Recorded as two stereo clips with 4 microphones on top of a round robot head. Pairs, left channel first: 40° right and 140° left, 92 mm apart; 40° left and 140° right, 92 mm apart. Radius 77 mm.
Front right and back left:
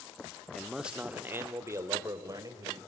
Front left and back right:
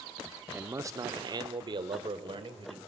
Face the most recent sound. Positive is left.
turn(degrees=-170)